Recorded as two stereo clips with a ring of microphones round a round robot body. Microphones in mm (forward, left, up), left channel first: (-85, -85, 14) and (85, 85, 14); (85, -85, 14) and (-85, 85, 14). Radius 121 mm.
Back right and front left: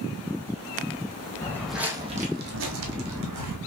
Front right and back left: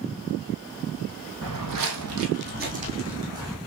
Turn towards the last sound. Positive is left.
turn(degrees=55)